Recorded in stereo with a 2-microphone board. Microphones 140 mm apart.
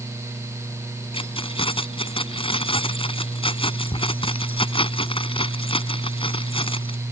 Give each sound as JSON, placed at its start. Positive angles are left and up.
{"t": 1.1, "sound": "keys jangling", "side_deg": 40}